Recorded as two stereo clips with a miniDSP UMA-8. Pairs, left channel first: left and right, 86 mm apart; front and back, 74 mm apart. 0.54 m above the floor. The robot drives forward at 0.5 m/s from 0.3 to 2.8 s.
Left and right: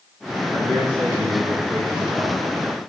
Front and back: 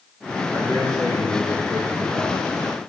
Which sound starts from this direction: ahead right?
A man speaking, at 0.5 s.